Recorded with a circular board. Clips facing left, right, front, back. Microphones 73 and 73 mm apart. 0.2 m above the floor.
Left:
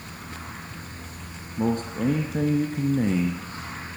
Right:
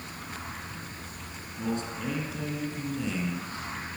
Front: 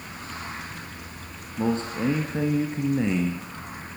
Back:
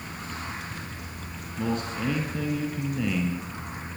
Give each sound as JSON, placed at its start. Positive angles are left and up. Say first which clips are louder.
{"t": 1.6, "sound": "a man speaking", "louder": "left 7 dB, front 4 dB", "azimuth_deg": 60, "distance_m": 1.9}